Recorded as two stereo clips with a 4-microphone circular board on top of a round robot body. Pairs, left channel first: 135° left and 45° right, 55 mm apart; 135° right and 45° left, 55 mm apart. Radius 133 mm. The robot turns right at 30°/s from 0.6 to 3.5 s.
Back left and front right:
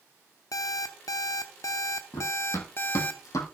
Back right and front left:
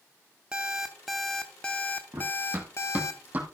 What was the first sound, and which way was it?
An alarm clock, 120° left.